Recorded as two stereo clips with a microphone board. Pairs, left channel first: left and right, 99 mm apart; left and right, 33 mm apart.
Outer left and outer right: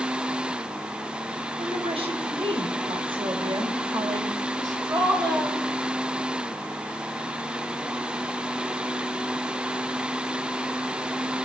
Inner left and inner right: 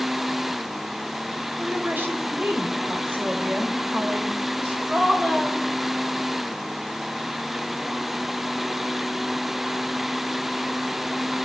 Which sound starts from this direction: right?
A woman speaking, at 1.6 s.